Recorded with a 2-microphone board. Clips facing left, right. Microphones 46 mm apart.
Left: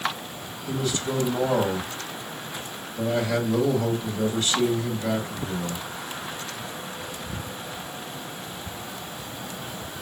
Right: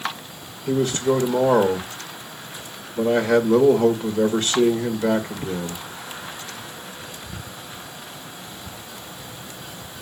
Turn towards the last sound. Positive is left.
turn(degrees=-50)  # may be behind; listen again after turning